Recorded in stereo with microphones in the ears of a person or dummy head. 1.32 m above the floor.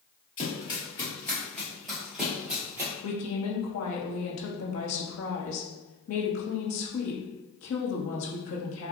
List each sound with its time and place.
0.4 s running footsteps: 35° left (ahead or behind), 1.8 m; by 2.9 s 10° right (ahead or behind), 2.0 m
3.0 s a woman speaking: 80° left, 1.4 m